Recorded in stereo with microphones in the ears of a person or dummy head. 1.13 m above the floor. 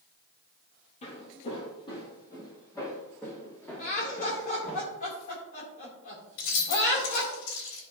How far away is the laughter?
About 3 m.